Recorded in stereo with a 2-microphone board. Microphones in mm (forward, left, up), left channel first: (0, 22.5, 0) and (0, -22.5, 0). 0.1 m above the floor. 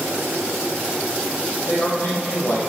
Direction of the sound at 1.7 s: 65° left (ahead or behind).